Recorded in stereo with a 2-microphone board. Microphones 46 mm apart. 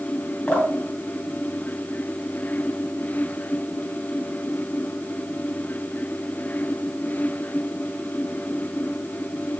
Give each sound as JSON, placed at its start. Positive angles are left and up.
{"t": 0.5, "sound": "dripping", "side_deg": 30, "distance_m": 2.5}